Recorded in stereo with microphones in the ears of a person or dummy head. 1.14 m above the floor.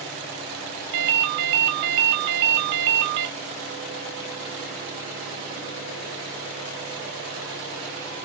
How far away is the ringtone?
About 0.8 m.